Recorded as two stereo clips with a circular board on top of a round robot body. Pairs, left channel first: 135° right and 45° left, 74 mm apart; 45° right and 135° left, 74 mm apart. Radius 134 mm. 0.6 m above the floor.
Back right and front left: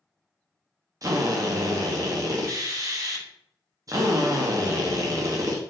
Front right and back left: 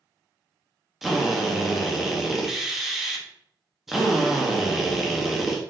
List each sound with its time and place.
1.0 s a drill: 50° left, 0.8 m